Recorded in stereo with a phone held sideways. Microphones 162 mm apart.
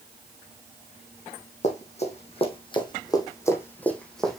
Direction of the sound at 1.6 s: 45° left (ahead or behind).